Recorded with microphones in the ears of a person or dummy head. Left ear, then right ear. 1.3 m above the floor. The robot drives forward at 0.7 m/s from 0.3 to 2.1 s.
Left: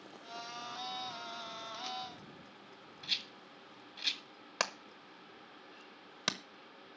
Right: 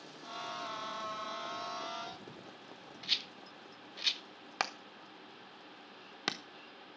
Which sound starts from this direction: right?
A rattle, at 3.0 s.